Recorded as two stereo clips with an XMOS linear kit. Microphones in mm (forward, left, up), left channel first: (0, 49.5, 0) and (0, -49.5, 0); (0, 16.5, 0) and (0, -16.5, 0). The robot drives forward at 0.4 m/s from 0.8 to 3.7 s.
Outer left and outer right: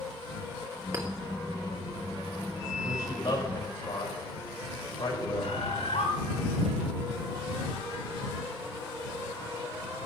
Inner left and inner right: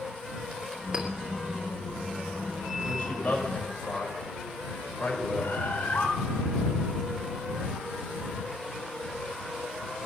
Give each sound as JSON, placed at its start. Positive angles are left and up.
{"t": 0.9, "sound": "a clink", "side_deg": -30, "distance_m": 2.0}
{"t": 2.8, "sound": "a man speaking", "side_deg": 40, "distance_m": 6.0}
{"t": 5.4, "sound": "a bird", "side_deg": 70, "distance_m": 3.5}